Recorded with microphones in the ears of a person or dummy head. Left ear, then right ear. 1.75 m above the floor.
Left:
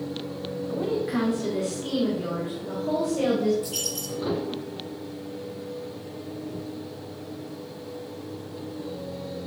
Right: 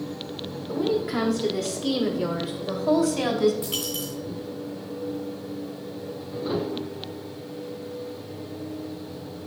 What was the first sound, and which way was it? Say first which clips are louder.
A woman speaking: right 3 dB; 5° left (ahead or behind).